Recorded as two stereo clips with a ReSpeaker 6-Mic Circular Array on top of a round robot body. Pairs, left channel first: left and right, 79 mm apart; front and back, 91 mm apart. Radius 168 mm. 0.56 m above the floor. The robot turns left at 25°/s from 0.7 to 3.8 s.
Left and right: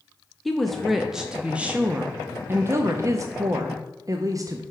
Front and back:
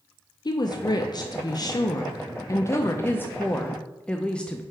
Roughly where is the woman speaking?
Ahead.